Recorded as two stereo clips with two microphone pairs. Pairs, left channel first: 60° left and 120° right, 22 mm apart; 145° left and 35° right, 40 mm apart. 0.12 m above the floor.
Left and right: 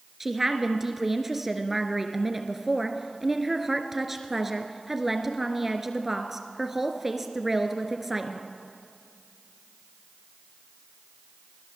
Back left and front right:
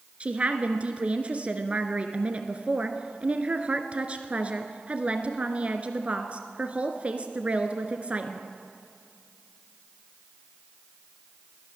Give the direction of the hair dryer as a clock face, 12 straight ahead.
No hair dryer in this recording.